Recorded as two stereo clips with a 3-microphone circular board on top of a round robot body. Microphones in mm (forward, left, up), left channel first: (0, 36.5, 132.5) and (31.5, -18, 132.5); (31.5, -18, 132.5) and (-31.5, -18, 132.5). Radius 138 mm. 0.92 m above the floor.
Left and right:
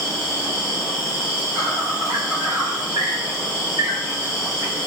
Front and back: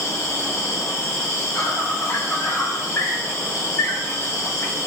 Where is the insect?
45° right, 1.5 m.